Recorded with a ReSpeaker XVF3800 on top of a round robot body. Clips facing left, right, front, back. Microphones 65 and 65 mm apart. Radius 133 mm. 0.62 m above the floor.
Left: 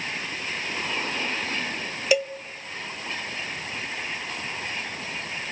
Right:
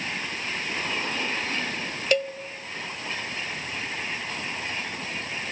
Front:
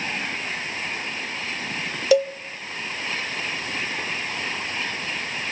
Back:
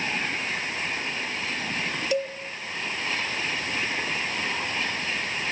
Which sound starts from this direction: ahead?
A cowbell, at 2.1 s.